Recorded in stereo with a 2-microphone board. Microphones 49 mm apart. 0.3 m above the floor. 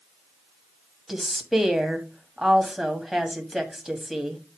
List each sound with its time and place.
1.1 s a woman speaking: 5° right (ahead or behind), 1.8 m